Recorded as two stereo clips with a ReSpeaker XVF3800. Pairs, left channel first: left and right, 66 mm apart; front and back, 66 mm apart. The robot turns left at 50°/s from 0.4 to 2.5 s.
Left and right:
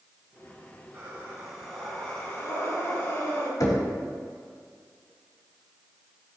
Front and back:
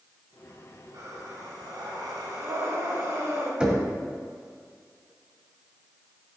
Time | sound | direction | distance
0.9 | breathing | 140° right | 4 m
3.6 | knocking | 110° left | 2 m